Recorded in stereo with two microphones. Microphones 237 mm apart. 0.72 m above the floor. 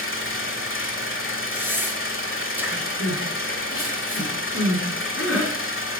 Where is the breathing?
10° right (ahead or behind), 1.6 m.